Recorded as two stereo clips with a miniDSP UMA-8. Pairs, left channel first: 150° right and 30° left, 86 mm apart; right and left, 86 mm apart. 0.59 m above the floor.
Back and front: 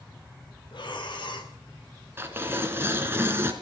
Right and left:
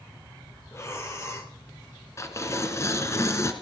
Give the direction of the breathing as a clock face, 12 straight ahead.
5 o'clock.